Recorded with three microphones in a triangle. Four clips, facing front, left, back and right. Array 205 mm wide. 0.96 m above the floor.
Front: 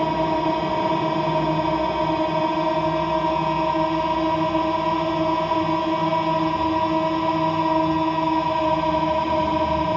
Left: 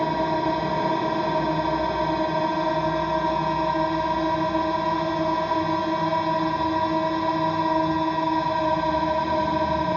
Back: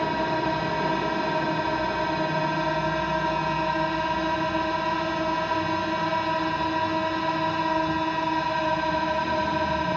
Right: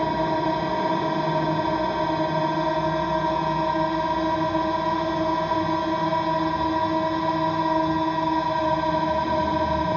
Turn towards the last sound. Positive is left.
turn(degrees=0)